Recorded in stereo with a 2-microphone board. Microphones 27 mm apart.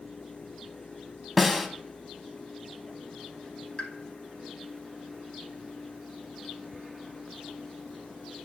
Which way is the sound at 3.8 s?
40° left (ahead or behind).